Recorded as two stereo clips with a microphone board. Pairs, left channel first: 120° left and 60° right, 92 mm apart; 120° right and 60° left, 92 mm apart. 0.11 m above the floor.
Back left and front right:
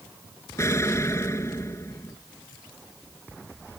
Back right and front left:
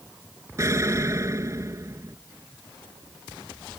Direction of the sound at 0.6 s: 85° left.